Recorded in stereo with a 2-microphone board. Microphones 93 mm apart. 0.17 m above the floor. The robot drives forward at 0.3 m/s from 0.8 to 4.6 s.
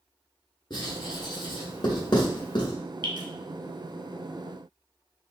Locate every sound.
0.7 s writing: 50° left (ahead or behind), 1.4 m; by 2.7 s 55° left (ahead or behind), 1.4 m
3.0 s dripping: 55° right (ahead or behind), 0.9 m